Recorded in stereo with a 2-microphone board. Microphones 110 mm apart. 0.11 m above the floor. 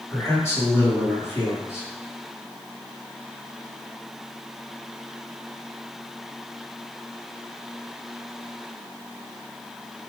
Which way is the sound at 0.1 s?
20° left (ahead or behind).